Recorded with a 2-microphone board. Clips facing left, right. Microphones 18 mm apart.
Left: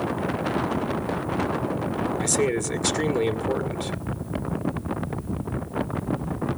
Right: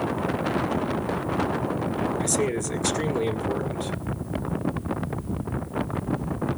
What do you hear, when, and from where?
2.2 s a man speaking: 15° left (ahead or behind), 2 m